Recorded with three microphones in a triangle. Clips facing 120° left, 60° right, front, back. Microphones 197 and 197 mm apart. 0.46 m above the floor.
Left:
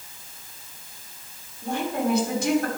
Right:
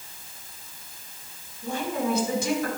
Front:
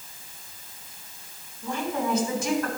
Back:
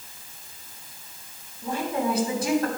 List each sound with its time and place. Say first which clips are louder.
1.6 s a woman speaking: left 2 dB, back 2 dB; 125° left, 3 m